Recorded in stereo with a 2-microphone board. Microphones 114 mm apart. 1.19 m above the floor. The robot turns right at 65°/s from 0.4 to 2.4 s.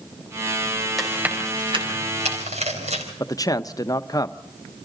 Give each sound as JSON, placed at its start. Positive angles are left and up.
{"t": 1.0, "sound": "chewing", "side_deg": 0, "distance_m": 4.0}
{"t": 3.2, "sound": "a man speaking", "side_deg": 30, "distance_m": 0.7}